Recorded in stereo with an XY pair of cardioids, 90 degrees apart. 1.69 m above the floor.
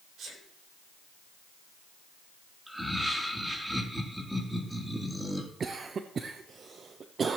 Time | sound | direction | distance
0.2 | a sneeze | 65° right | 6 m
2.7 | laughter | 5° right | 3 m
5.6 | a cough | 50° right | 0.9 m